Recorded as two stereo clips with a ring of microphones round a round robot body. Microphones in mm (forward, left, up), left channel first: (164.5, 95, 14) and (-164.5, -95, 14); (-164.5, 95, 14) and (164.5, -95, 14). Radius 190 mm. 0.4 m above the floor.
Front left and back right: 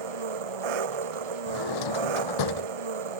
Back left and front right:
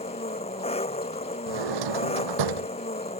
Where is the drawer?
Straight ahead.